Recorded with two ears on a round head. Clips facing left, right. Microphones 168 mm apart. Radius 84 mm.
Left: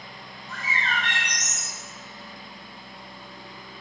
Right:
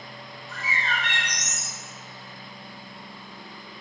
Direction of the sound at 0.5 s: 20° left (ahead or behind).